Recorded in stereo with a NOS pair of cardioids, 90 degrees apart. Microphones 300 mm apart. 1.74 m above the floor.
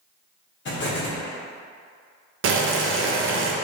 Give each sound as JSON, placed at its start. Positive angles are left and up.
{"t": 0.7, "sound": "an explosion", "azimuth_deg": 40, "distance_m": 1.1}
{"t": 2.4, "sound": "boiling", "azimuth_deg": -45, "distance_m": 0.6}